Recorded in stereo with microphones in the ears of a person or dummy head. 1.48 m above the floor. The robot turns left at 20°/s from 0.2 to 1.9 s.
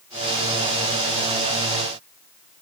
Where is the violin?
No violin in this recording.